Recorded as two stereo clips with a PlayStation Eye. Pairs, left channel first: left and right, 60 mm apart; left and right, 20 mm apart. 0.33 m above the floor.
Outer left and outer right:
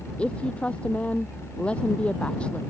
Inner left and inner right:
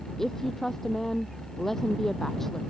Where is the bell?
No bell in this recording.